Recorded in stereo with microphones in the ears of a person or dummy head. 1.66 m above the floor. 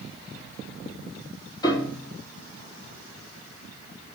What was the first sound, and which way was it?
A piano, 20° left (ahead or behind).